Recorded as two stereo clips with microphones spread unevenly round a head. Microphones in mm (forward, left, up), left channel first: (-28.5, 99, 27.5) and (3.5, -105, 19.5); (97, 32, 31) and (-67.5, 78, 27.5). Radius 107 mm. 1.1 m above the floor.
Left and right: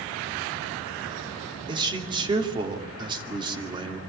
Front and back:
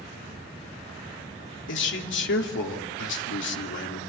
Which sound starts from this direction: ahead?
A man speaking, at 1.7 s.